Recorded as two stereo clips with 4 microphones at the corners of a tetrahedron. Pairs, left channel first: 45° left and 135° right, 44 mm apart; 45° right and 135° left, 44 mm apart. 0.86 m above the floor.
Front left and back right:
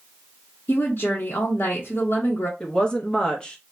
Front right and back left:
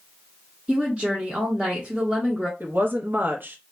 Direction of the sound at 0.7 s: 70° left.